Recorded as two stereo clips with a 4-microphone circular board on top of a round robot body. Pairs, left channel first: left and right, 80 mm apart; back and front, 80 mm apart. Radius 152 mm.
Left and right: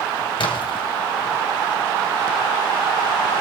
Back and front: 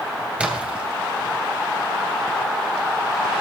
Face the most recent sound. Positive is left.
turn(degrees=75)